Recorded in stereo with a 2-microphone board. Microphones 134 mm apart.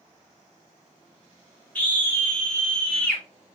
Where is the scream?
10° left (ahead or behind), 1.9 m.